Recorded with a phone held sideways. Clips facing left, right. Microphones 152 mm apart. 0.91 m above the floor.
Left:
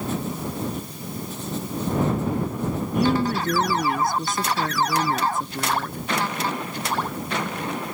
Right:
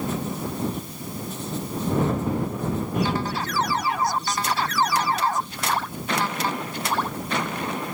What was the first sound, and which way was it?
A woman speaking, 50° left (ahead or behind).